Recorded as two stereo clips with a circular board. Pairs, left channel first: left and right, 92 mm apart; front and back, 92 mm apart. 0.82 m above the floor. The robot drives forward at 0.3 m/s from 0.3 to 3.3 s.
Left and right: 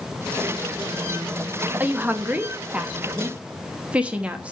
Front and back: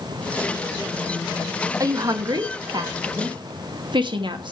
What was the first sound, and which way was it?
A woman speaking, 150° right.